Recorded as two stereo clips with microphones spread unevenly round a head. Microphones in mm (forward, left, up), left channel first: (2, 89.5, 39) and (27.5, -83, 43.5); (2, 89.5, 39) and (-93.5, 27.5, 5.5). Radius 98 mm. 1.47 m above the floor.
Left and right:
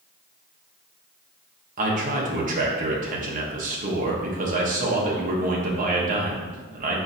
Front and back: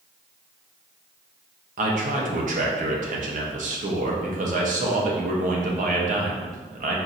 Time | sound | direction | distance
1.8 | a man speaking | 130° right | 0.9 m